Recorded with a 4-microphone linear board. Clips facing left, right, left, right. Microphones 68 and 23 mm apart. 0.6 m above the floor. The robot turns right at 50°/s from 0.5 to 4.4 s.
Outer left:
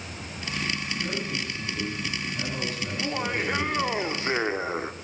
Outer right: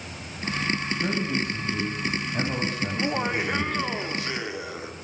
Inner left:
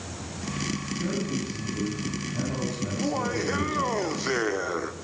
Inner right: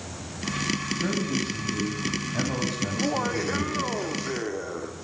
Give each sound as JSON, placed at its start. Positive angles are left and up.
{"t": 1.0, "sound": "a man speaking", "azimuth_deg": -140, "distance_m": 3.5}
{"t": 2.9, "sound": "laughter", "azimuth_deg": -30, "distance_m": 1.1}